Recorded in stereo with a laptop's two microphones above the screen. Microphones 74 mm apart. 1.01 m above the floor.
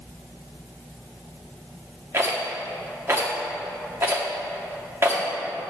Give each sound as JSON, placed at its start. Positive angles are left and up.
{"t": 2.1, "sound": "a rattle", "side_deg": -35, "distance_m": 1.0}